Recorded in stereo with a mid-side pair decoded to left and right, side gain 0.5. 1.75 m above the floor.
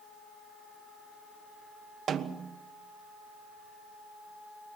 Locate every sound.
2.1 s a snare drum: 50° right, 1.2 m